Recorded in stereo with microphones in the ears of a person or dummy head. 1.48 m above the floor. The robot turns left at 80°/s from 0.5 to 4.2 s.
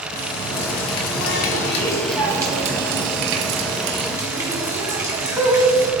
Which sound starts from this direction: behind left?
A running tap, at 0.1 s.